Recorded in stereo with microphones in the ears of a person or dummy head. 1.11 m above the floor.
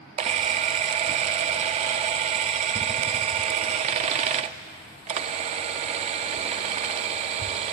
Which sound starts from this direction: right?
A camera shutter, at 0.2 s.